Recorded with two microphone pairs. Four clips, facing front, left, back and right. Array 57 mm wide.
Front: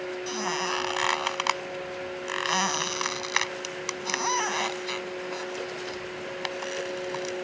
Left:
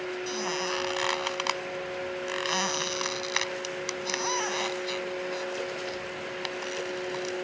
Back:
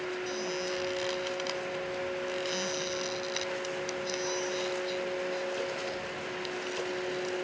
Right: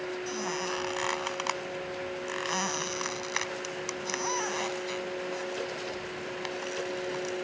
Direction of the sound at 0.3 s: 10° left.